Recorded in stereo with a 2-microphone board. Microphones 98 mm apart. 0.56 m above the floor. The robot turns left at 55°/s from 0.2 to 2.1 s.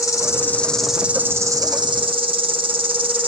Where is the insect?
35° left, 1.0 m; by 3.3 s 70° right, 1.0 m.